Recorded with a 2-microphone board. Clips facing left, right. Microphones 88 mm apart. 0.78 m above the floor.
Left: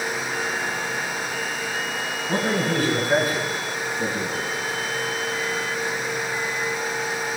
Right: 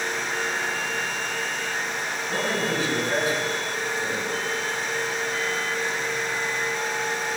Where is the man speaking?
50° left (ahead or behind), 9 m; by 4.5 s 40° left (ahead or behind), 7.5 m.